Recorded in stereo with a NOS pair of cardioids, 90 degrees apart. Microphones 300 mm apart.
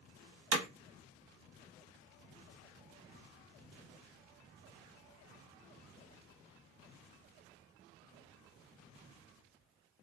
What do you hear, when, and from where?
0.5 s hammering: 60° right, 0.9 m